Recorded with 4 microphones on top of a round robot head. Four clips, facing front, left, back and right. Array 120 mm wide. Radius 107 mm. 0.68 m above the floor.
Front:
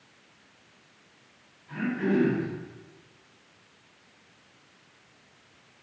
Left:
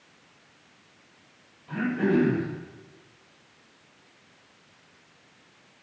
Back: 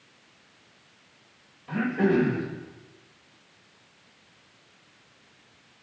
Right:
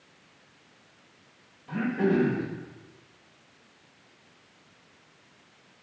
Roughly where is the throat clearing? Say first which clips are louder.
Left 1 dB, back 3 dB; behind.